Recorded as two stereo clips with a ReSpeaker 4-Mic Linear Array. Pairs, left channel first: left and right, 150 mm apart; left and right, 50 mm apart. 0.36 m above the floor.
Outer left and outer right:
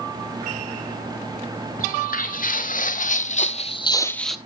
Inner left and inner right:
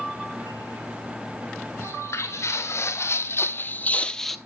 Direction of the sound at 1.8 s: 80° left.